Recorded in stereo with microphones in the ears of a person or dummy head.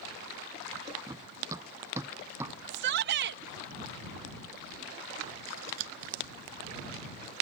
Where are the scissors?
80° right.